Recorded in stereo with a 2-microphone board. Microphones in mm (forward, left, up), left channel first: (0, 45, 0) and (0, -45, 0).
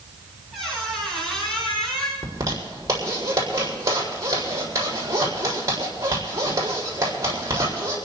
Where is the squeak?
5° left (ahead or behind), 8.5 m.